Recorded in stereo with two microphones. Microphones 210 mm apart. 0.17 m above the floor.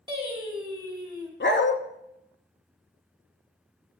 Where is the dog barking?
60° left (ahead or behind), 0.7 m.